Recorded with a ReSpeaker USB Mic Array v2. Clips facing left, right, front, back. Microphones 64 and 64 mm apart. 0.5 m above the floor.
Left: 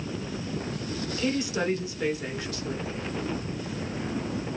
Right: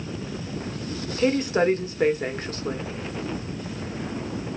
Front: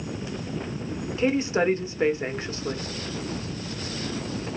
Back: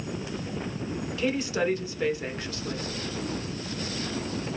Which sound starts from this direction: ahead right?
A woman speaking, at 1.2 s.